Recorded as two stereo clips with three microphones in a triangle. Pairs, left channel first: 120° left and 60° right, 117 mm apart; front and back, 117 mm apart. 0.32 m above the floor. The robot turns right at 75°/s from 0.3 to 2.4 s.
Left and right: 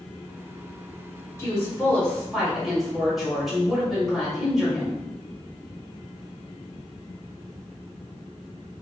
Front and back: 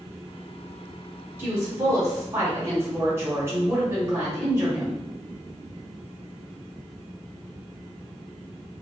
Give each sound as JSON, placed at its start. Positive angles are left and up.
{"t": 1.4, "sound": "a woman speaking", "azimuth_deg": 140, "distance_m": 1.1}